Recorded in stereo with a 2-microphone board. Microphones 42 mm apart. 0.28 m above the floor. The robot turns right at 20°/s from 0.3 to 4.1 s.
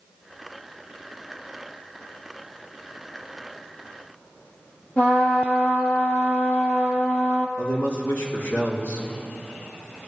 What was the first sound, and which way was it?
A trumpet, 45° left (ahead or behind).